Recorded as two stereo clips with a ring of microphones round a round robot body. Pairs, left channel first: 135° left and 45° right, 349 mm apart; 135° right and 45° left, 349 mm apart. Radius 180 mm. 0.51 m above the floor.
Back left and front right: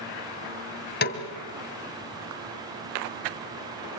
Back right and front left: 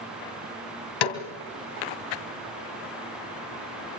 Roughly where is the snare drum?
Behind.